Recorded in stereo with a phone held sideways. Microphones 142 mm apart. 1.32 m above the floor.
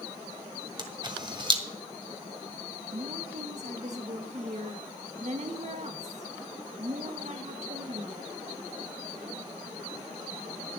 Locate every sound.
0.8 s a camera shutter: 35° right (ahead or behind), 1.6 m
2.9 s a woman speaking: 55° right (ahead or behind), 1.4 m